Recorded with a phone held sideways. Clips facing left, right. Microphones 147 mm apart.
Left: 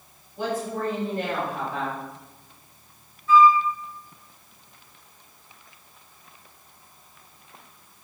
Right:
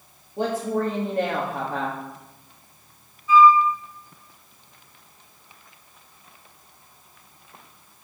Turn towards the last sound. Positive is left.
turn(degrees=-15)  # may be behind; listen again after turning